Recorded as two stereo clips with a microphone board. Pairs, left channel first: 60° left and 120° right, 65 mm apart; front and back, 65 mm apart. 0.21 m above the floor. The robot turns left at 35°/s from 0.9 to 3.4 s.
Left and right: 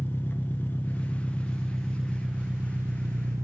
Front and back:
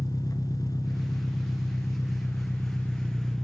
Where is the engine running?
5° left, 0.9 m; by 3.5 s 85° right, 0.9 m.